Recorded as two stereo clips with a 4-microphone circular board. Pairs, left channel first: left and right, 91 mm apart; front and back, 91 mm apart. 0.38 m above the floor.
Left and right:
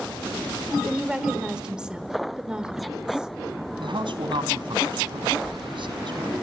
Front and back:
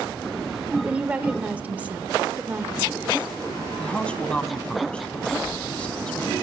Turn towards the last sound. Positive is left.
turn(degrees=-80)